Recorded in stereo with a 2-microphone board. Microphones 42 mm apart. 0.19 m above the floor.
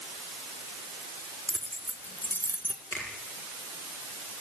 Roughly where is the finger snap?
Left.